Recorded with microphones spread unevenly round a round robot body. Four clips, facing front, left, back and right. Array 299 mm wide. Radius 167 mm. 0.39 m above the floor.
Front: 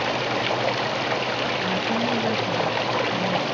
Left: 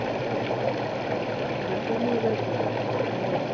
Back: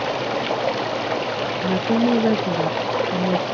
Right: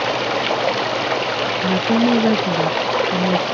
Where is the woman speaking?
105° right.